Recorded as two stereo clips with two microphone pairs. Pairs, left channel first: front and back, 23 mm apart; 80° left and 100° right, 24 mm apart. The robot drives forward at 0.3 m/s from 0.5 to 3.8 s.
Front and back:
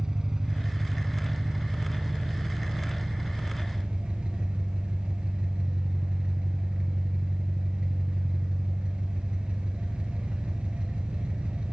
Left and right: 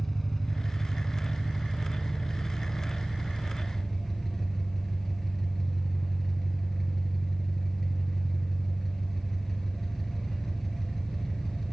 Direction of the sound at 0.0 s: 155° left.